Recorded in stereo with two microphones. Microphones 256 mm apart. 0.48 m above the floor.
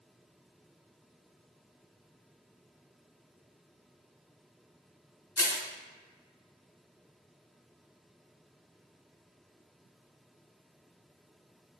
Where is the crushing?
70° left (ahead or behind), 0.7 m.